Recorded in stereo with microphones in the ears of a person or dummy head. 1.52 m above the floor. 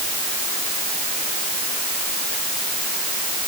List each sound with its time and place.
Only background noise.